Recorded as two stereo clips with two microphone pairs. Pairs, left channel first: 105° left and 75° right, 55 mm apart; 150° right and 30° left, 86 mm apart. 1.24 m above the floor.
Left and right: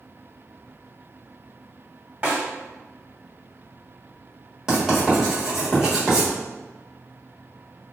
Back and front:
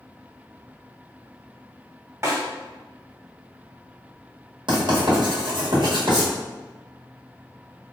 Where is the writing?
10° left, 1.2 m.